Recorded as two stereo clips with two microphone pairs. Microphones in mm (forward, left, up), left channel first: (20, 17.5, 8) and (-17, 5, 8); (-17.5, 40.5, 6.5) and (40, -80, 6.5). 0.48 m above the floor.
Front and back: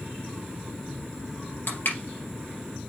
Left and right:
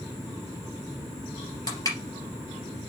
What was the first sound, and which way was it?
Crushing, 55° left.